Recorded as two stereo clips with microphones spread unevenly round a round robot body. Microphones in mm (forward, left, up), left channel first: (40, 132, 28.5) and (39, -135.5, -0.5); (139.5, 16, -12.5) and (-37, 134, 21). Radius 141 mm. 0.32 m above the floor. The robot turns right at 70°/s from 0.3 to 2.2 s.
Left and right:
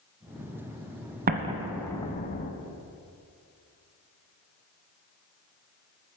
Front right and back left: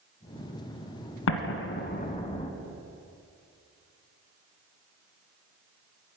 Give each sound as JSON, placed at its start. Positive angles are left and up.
{"t": 1.3, "sound": "an explosion", "azimuth_deg": -35, "distance_m": 1.3}